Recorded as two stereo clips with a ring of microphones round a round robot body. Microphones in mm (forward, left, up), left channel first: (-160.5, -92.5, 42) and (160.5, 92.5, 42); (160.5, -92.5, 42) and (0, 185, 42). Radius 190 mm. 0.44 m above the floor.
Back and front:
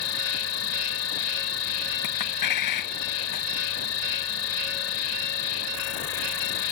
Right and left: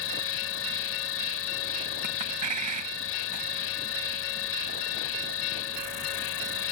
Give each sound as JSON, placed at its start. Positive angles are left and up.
{"t": 0.0, "sound": "an insect", "azimuth_deg": -105}
{"t": 2.0, "sound": "a clink", "azimuth_deg": 170}